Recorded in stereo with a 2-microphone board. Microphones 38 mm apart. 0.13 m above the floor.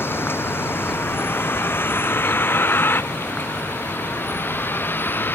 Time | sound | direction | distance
0.0 | a vehicle | 75° left (ahead or behind) | ?